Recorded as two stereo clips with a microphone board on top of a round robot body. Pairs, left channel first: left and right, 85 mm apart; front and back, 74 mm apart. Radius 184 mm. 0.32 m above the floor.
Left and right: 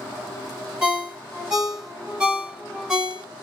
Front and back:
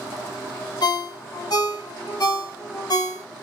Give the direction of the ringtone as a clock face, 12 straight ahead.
12 o'clock.